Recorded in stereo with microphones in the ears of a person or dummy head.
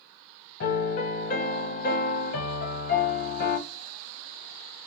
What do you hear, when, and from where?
0.6 s a piano: 50° left (ahead or behind), 1.3 m